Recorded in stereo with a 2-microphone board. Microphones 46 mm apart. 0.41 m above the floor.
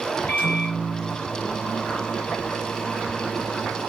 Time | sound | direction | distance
0.3 | a microwave | 50° left (ahead or behind) | 1.1 m